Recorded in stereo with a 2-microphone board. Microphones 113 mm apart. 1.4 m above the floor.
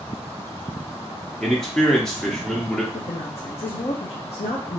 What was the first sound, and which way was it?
A man speaking, 5° left (ahead or behind).